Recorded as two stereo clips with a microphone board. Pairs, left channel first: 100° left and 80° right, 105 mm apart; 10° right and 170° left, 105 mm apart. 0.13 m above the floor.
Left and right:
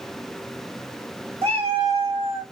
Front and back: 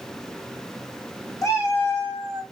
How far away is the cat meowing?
About 1.7 m.